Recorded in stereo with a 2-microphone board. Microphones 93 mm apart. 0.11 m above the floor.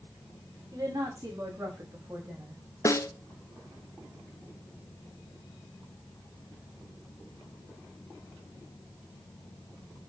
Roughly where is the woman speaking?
Right.